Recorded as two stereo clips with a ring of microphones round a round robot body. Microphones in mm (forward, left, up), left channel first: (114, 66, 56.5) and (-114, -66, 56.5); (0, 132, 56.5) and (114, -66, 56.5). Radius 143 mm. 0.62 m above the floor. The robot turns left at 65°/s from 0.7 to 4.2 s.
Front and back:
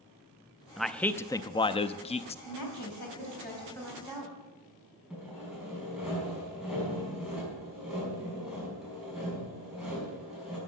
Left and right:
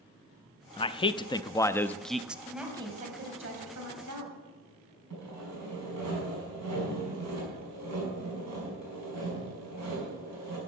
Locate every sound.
0.8 s a man speaking: 125° left, 0.5 m; by 2.4 s 20° left, 0.5 m
2.5 s a woman speaking: 35° left, 4 m; by 4.4 s 80° right, 4 m
5.1 s sawing: 60° right, 5.5 m